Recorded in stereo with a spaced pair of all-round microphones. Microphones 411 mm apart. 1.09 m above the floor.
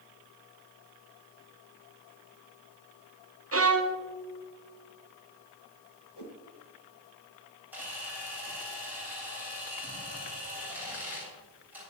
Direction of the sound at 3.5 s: 35° right (ahead or behind).